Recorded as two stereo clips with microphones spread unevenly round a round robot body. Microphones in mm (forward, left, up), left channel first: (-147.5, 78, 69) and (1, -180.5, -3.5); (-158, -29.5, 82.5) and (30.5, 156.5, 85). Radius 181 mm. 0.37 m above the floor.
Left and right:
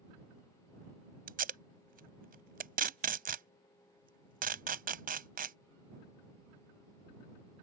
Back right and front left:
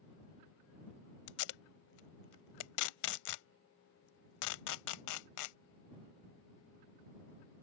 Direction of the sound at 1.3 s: 125° right.